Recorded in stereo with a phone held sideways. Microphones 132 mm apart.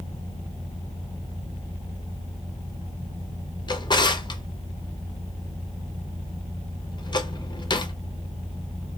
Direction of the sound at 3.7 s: 35° left (ahead or behind).